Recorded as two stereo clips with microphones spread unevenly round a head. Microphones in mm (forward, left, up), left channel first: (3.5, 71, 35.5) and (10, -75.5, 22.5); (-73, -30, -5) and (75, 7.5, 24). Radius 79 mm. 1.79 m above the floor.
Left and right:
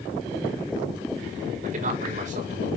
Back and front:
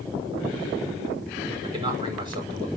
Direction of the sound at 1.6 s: 45° right.